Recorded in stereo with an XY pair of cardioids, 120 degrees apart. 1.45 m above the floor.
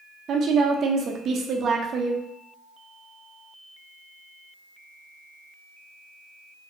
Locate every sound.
0.3 s a woman speaking: 50° right, 0.5 m